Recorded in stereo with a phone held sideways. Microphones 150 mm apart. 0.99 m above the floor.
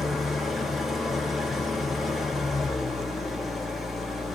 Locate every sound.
0.0 s an engine running: centre (ahead or behind), 1.5 m